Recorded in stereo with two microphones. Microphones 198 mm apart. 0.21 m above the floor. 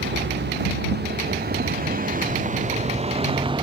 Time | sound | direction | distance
0.0 | a vehicle | 65° right (ahead or behind) | ?